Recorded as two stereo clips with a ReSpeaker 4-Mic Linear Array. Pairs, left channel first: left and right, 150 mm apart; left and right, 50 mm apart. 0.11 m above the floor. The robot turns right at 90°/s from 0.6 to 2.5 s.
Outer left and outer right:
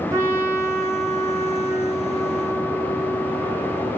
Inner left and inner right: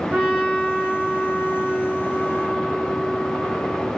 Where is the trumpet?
20° right (ahead or behind), 1.7 m; by 3.9 s 20° left (ahead or behind), 1.7 m.